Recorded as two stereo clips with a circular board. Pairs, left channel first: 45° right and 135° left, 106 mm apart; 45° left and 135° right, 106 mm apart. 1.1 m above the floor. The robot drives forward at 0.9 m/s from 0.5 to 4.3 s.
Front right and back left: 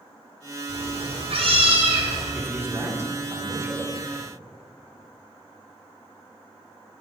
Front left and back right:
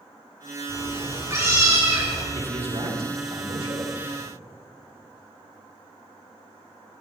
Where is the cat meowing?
160° left, 3 m; by 2.2 s 165° left, 4.5 m.